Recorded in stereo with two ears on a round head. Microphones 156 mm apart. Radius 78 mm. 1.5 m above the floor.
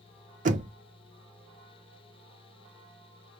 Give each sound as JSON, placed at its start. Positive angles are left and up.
{"t": 0.5, "sound": "knocking", "side_deg": -45, "distance_m": 0.7}